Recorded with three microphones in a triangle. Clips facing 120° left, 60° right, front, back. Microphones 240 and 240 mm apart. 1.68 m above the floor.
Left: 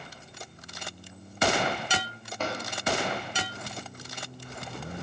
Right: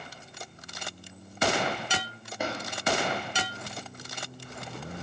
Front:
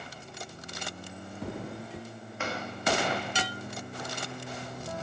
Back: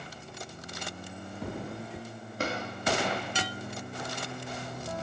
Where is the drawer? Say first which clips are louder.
Even, back 3 dB; 135° right, 1.7 m.